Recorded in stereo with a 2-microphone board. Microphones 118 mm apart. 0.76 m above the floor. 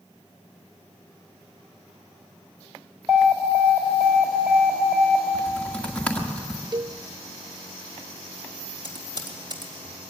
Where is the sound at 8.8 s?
45° right (ahead or behind), 3 m.